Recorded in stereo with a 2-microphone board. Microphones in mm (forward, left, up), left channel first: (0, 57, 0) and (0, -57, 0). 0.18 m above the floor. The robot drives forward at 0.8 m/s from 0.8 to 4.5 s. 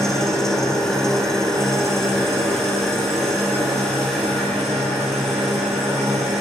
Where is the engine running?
5° left (ahead or behind), 4.5 m.